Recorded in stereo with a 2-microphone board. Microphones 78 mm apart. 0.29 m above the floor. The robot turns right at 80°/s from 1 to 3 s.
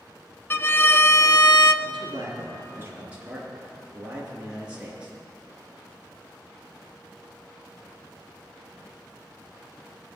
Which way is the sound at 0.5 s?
30° left.